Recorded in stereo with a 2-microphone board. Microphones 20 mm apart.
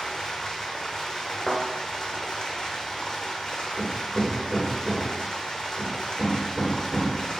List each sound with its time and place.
0.0 s running water: 40° left (ahead or behind), 0.8 m
1.5 s a thud: 40° left (ahead or behind), 1.2 m
3.8 s hammering: 50° right (ahead or behind), 2 m